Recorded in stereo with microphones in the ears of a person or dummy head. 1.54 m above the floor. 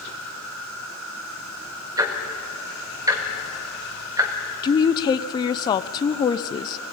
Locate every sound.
0.0 s an insect: 85° right, 6.5 m
2.0 s ticking: 15° right (ahead or behind), 2 m
4.6 s a woman speaking: 20° left (ahead or behind), 0.5 m